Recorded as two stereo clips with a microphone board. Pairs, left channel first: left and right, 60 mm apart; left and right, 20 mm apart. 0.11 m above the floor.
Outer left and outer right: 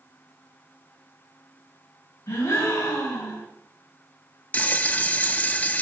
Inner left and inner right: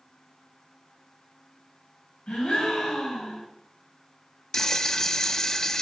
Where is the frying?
25° left (ahead or behind), 0.5 m.